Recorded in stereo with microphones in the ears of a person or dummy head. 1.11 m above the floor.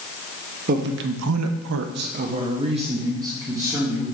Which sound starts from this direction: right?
A man speaking, at 0.7 s.